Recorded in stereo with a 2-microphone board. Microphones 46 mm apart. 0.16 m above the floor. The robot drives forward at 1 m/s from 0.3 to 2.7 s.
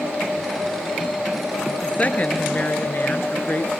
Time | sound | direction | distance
1.8 | a woman speaking | 30° left (ahead or behind) | 2 m